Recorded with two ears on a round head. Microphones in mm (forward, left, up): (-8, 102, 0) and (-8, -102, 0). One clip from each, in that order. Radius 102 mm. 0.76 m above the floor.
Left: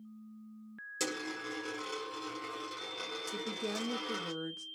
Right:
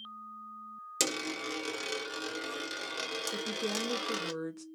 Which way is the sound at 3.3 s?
10° right (ahead or behind).